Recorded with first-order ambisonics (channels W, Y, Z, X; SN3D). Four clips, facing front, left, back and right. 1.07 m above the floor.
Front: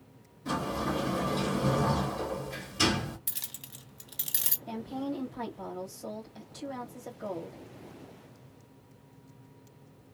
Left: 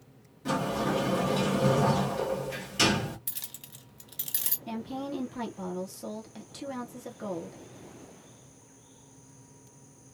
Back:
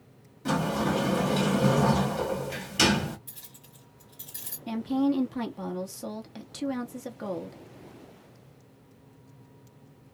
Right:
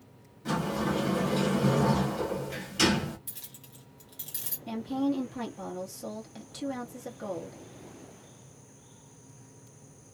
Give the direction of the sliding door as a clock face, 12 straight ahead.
6 o'clock.